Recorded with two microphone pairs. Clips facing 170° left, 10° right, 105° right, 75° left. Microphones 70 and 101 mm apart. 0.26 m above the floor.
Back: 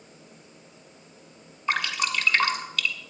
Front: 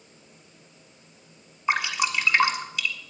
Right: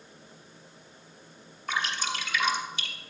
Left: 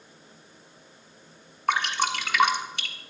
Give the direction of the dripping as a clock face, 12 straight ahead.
10 o'clock.